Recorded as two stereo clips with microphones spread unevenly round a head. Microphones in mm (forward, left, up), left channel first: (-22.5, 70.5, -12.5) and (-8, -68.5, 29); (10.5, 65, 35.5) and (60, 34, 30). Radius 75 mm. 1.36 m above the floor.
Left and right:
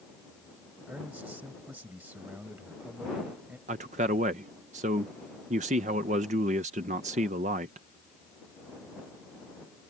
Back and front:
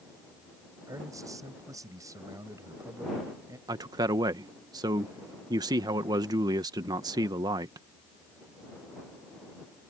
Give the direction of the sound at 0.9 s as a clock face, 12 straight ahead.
12 o'clock.